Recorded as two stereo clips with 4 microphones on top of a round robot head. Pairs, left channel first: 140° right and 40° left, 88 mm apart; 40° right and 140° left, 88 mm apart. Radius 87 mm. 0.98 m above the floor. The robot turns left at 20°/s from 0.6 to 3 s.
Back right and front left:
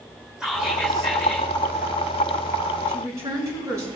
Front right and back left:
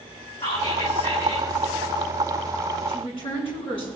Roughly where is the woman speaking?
Ahead.